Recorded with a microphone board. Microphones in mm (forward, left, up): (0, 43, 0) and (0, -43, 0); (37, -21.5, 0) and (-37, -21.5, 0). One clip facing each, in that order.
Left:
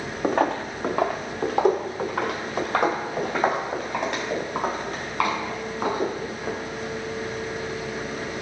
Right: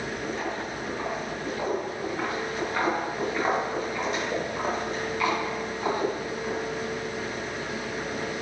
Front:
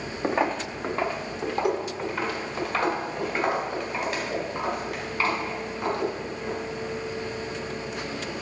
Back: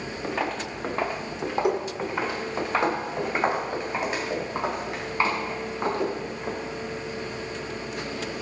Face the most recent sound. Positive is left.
turn(degrees=120)